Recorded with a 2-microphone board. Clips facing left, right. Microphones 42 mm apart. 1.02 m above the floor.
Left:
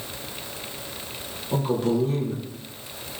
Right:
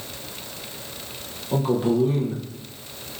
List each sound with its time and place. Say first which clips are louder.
1.5 s a man speaking: right 2 dB; 15° right (ahead or behind), 0.6 m